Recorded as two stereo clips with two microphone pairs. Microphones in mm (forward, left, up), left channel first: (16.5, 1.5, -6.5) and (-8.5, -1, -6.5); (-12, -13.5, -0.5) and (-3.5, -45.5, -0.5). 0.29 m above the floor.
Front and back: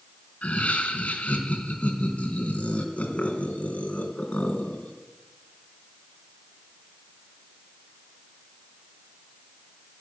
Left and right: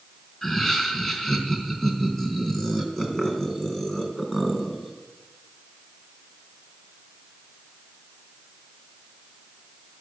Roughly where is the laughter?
Ahead left.